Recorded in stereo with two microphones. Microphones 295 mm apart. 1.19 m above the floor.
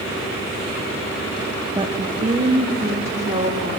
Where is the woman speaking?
15° right (ahead or behind), 0.5 m; by 3.7 s 30° right (ahead or behind), 2.5 m.